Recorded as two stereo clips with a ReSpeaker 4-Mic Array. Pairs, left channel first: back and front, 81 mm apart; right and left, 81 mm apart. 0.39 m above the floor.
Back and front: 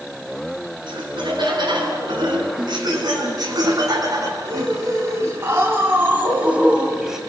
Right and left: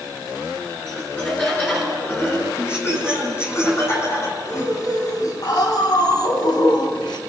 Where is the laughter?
20° right, 5.5 m; by 7.2 s 85° right, 2.5 m.